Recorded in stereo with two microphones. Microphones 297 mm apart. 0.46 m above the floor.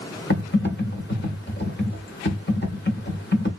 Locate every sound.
0.3 s typing on a keyboard: 35° left (ahead or behind), 1.1 m